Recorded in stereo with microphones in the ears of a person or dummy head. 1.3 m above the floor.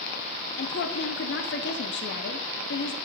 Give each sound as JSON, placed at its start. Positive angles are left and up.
{"t": 0.6, "sound": "a woman speaking", "side_deg": 60, "distance_m": 0.6}